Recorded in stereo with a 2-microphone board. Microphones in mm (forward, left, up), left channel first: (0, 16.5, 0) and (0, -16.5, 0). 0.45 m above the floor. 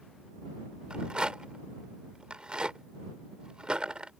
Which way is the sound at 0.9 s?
30° right (ahead or behind).